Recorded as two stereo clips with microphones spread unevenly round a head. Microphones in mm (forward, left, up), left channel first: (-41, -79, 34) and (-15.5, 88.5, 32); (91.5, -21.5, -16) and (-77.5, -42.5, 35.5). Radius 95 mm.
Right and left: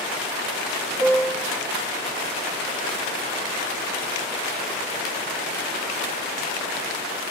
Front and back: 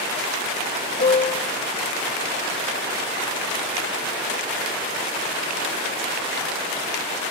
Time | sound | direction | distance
1.0 | a piano | straight ahead | 0.6 m